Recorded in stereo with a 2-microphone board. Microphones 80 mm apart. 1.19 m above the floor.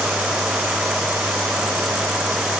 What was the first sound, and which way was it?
Only background noise.